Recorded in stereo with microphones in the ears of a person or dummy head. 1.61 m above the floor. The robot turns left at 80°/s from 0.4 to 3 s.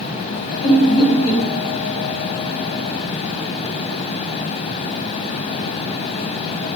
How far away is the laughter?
About 1.5 m.